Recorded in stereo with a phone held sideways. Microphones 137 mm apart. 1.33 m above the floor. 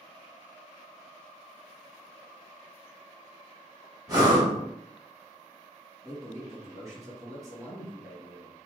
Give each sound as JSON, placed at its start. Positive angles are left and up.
{"t": 4.1, "sound": "breathing", "side_deg": -25, "distance_m": 1.7}
{"t": 6.0, "sound": "a man speaking", "side_deg": -20, "distance_m": 1.5}